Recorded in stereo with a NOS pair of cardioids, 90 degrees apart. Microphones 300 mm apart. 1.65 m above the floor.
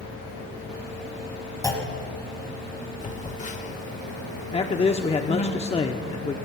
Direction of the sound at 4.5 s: 20° left.